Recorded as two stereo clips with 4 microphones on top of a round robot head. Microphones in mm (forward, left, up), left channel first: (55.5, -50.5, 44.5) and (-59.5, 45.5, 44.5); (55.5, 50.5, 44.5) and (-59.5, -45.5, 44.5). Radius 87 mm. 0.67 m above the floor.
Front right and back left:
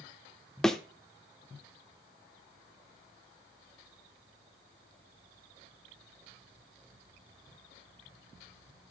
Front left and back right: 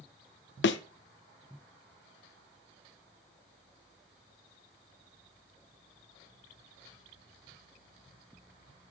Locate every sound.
0.6 s a thud: 45° left, 0.5 m